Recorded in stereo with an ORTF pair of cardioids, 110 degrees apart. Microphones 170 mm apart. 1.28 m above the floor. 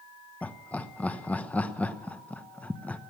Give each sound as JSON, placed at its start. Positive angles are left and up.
{"t": 0.4, "sound": "laughter", "azimuth_deg": 10, "distance_m": 1.1}